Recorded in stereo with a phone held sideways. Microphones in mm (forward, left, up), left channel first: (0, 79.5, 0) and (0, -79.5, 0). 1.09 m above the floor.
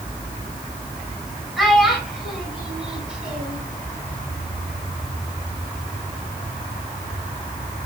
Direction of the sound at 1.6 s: Centre (ahead or behind).